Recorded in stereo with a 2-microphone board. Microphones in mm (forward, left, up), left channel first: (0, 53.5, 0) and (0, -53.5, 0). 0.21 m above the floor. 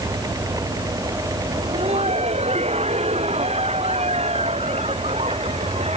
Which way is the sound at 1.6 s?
85° right.